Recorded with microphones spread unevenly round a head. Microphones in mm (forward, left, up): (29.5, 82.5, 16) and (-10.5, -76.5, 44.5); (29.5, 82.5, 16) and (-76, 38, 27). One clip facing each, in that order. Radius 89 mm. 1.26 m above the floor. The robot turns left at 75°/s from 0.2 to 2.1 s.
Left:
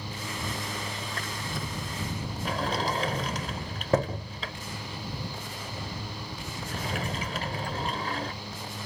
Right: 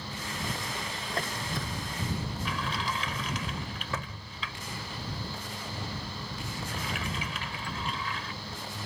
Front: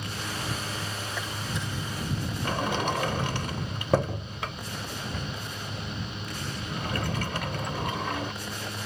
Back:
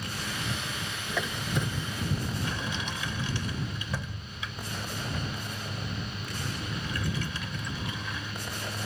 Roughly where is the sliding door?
Ahead left.